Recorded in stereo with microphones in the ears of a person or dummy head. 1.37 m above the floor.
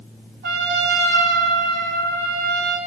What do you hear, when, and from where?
0.4 s a trumpet: 55° right (ahead or behind), 2.5 m